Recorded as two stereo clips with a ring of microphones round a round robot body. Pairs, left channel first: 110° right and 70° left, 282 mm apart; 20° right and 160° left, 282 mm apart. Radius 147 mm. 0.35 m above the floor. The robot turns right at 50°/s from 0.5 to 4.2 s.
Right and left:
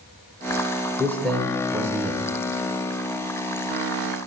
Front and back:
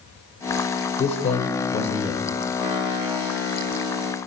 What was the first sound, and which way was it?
A man speaking, 45° right.